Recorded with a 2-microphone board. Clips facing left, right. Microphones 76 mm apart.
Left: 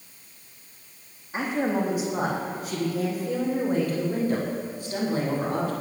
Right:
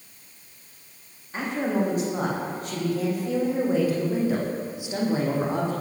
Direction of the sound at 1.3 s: 10° left (ahead or behind).